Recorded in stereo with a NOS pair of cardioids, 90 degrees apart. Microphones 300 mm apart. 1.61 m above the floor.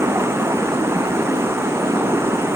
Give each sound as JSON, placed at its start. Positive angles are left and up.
{"t": 0.0, "sound": "running water", "azimuth_deg": -10}